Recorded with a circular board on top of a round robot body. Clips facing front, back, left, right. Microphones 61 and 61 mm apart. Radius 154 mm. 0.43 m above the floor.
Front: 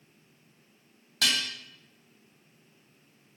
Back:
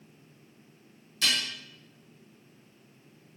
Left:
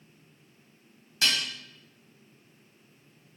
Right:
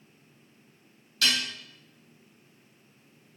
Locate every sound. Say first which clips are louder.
1.2 s dishes clattering: front 1 dB, right 1 dB; 25° left, 2.5 m